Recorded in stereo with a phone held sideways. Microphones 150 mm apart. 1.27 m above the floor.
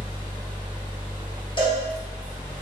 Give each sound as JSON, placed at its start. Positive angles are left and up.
{"t": 0.0, "sound": "a fan", "side_deg": -30, "distance_m": 0.9}
{"t": 1.6, "sound": "a cowbell", "side_deg": 30, "distance_m": 0.8}